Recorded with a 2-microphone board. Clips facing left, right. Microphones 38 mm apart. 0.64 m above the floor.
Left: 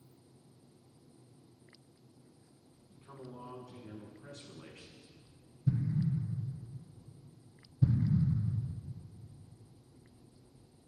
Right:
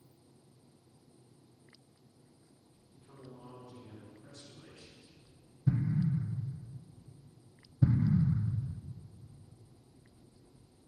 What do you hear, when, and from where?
2.9 s a man speaking: 75° left (ahead or behind), 4.5 m
5.7 s an explosion: 60° right (ahead or behind), 0.6 m